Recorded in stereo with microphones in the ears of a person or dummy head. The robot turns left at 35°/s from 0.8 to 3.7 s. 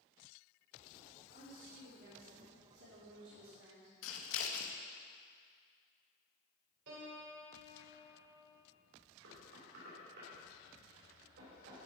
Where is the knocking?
65° right (ahead or behind), 4.5 m.